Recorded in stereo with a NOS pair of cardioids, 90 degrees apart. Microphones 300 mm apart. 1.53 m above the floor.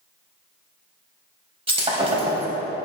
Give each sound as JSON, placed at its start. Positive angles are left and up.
{"t": 1.7, "sound": "breaking glass", "azimuth_deg": -20, "distance_m": 4.0}